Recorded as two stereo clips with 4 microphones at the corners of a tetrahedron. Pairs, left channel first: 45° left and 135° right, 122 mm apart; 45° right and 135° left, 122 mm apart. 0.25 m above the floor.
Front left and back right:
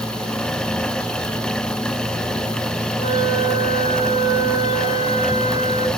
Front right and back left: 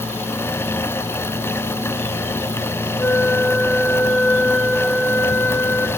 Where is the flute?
30° left, 1.0 m.